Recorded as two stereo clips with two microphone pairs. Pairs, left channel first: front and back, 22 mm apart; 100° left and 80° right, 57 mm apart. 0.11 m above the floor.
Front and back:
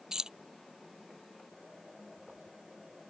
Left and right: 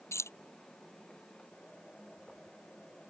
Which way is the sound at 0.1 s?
125° left.